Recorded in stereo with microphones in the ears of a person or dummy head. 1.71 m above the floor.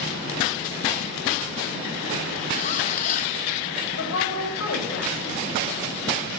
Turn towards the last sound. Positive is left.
turn(degrees=65)  # may be behind; listen again after turning